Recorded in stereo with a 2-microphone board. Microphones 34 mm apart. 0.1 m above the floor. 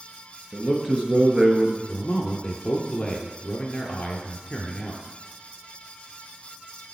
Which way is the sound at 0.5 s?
20° right (ahead or behind).